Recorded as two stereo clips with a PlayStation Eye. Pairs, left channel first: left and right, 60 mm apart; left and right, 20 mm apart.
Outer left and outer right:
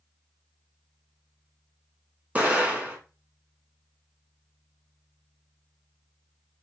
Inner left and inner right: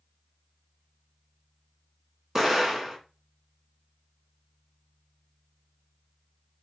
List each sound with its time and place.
2.4 s an explosion: 25° right (ahead or behind), 0.9 m